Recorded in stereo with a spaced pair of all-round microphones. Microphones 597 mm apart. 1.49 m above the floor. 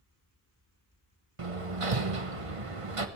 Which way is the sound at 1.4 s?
60° right (ahead or behind).